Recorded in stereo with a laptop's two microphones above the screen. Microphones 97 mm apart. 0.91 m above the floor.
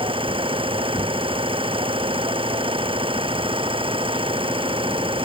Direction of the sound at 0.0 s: 60° right (ahead or behind).